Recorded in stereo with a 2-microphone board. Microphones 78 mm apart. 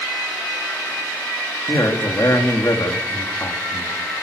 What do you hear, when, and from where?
1.7 s a man speaking: 50° left (ahead or behind), 3 m